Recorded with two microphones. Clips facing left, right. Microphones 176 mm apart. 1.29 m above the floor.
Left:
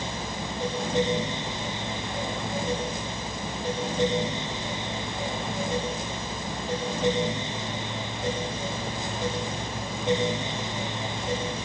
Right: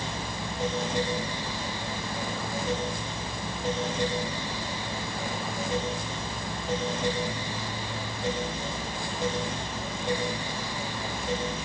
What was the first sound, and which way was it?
Only background noise.